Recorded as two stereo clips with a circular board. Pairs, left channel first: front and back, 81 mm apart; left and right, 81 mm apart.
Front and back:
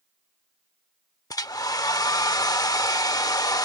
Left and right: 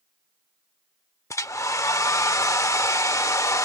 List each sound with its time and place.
1.3 s a hair dryer: 40° left